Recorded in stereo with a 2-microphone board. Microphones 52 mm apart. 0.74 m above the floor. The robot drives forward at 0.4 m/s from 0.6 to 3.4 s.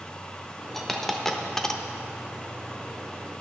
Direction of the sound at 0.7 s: 10° left (ahead or behind).